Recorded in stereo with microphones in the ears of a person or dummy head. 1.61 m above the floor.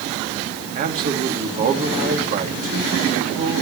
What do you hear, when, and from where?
0.8 s a man speaking: 45° right (ahead or behind), 2.5 m